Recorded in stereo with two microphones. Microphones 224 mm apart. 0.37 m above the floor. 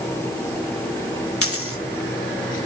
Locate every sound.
1.4 s a dropped coin: 80° left, 1.2 m